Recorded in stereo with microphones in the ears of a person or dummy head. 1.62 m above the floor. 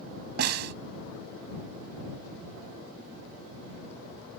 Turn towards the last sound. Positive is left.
turn(degrees=-65)  # may be behind; listen again after turning